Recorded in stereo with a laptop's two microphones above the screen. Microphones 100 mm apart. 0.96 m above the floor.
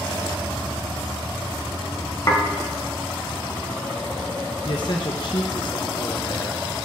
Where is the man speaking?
50° left (ahead or behind), 0.5 m.